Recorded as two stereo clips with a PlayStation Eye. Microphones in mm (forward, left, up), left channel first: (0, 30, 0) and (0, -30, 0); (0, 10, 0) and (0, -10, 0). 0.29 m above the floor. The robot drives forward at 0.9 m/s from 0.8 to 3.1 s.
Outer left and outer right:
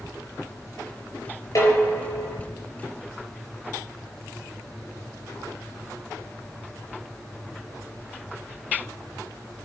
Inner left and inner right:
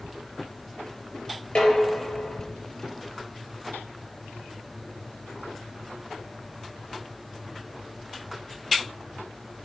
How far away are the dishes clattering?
About 3.5 m.